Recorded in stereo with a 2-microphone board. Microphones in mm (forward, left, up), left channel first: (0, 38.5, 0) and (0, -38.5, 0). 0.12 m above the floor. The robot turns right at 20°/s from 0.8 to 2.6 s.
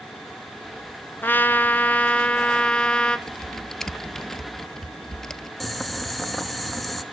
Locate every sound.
1.2 s a trumpet: 25° left (ahead or behind), 0.8 m; by 3.2 s 15° left (ahead or behind), 0.8 m
3.3 s typing on a keyboard: 5° left (ahead or behind), 0.7 m
5.6 s boiling: centre (ahead or behind), 0.9 m